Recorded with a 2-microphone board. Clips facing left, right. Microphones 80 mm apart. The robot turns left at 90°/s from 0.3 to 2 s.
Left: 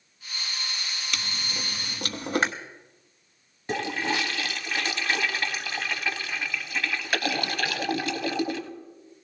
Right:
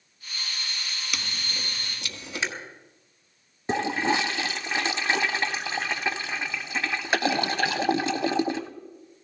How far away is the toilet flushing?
About 0.7 m.